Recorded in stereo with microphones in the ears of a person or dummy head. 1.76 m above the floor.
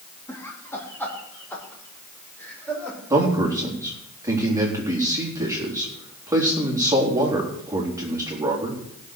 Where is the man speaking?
10° right (ahead or behind), 4 m.